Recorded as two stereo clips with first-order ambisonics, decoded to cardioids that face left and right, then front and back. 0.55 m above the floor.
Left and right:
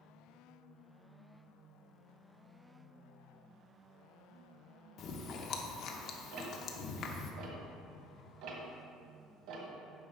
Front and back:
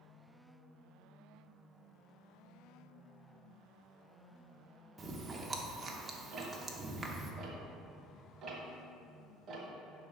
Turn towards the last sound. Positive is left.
turn(degrees=-120)